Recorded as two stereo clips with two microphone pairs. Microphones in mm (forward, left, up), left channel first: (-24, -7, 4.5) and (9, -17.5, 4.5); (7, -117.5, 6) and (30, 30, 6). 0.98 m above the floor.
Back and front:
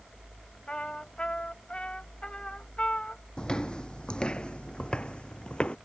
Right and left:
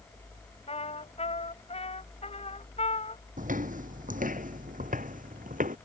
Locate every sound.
0.7 s a trumpet: 140° right
3.4 s footsteps: 100° left; by 5.8 s 105° left